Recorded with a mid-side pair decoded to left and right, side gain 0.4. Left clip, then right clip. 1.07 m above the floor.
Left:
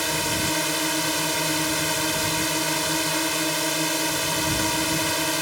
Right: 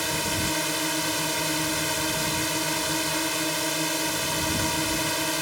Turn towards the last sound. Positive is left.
turn(degrees=20)